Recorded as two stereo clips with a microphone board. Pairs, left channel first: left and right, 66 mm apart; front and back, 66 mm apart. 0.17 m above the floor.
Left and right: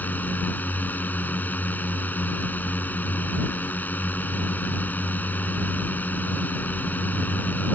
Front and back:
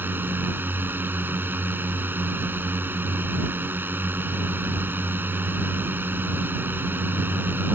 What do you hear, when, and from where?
0.0 s a drone: 140° left